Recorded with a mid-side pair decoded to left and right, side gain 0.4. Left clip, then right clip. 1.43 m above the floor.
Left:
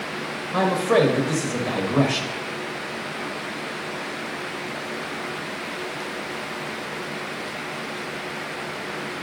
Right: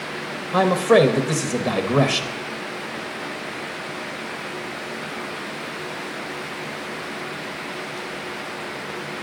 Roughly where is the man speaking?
Ahead right.